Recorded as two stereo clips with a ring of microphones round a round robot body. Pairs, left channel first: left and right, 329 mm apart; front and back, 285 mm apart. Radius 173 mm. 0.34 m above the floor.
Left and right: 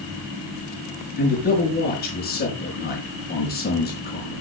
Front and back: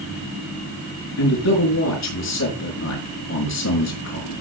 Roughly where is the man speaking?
Ahead left.